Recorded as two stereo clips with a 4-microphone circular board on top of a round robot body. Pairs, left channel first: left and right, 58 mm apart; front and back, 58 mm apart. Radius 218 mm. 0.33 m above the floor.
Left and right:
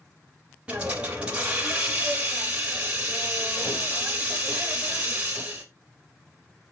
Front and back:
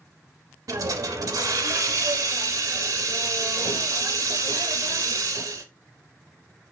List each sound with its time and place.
0.7 s a hiss: 165° right, 0.6 m